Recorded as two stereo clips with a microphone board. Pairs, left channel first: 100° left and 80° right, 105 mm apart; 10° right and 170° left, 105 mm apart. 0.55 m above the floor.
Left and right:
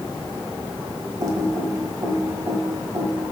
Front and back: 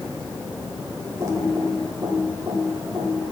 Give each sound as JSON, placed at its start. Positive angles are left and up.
{"t": 1.2, "sound": "typing on a keyboard", "azimuth_deg": -130, "distance_m": 1.3}